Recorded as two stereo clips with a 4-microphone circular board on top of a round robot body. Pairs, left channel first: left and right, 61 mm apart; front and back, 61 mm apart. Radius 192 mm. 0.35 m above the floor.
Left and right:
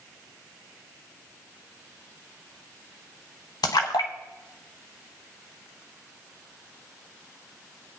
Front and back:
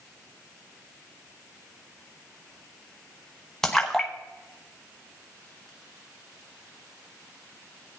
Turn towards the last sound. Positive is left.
turn(degrees=85)